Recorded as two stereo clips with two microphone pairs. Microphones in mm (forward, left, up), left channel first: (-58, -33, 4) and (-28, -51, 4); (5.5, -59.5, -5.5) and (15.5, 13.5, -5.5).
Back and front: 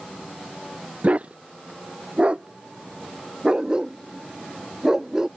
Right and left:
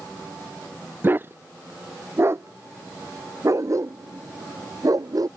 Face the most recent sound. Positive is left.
turn(degrees=45)